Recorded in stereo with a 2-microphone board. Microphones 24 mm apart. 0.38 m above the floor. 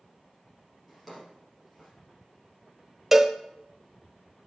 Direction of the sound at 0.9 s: Centre (ahead or behind).